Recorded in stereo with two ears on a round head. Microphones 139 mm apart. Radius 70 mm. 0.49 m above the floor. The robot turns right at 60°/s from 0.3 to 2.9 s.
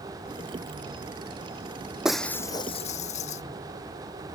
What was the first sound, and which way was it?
Breaking glass, 5° right.